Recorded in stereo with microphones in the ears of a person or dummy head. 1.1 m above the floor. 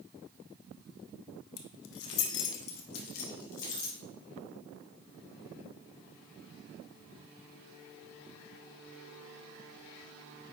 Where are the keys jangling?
70° left (ahead or behind), 0.8 m; by 4.0 s 45° left (ahead or behind), 2 m.